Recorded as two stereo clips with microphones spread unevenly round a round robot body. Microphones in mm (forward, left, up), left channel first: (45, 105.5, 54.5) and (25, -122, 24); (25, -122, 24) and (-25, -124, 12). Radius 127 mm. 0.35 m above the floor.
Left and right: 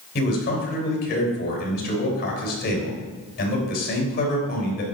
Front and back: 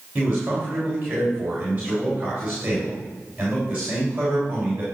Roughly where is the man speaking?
Behind left.